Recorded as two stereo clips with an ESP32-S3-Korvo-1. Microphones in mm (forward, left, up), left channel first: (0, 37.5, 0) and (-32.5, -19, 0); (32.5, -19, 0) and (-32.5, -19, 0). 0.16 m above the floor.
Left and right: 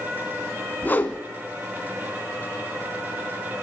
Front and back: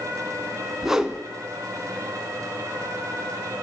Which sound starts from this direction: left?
A whoosh, at 0.8 s.